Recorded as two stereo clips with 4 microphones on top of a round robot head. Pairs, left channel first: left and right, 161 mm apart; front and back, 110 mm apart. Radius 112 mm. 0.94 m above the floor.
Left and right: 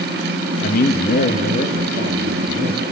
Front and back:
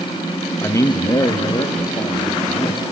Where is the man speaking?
60° left, 1.2 m; by 2.9 s 45° left, 3 m.